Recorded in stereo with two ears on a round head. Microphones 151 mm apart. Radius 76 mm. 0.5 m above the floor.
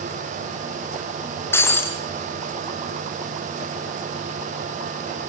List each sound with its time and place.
1.5 s breaking glass: 15° left (ahead or behind), 4 m